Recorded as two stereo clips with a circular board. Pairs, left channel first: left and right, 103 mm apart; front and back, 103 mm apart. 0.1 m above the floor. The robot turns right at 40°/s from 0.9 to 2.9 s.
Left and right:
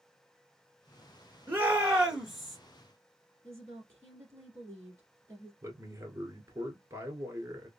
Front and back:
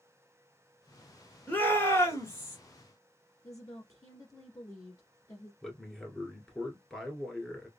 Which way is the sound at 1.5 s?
45° right.